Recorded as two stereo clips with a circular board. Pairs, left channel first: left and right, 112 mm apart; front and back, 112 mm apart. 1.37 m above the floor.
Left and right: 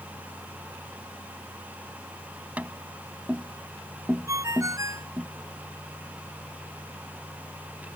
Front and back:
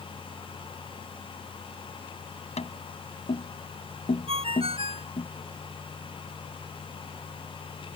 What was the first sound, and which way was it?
Tapping, 10° right.